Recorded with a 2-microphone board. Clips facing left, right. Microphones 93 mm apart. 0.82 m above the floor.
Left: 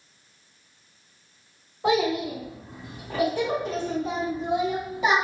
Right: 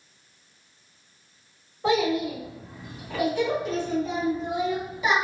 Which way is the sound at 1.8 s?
15° left (ahead or behind).